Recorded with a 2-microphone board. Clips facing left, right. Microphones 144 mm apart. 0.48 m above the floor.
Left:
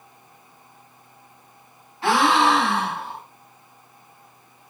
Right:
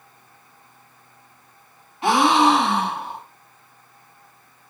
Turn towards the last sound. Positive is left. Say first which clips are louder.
# right 2 dB
turn(degrees=-20)  # may be behind; listen again after turning